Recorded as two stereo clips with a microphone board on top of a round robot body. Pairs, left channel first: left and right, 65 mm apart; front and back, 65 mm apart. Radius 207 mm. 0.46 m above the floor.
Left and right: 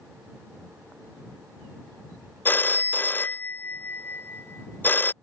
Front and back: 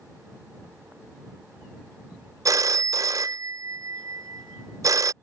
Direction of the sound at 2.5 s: 150° left.